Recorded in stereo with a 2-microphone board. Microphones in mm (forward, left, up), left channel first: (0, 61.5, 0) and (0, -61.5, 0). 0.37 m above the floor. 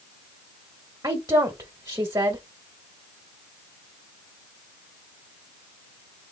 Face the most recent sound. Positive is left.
turn(degrees=-30)  # may be behind; listen again after turning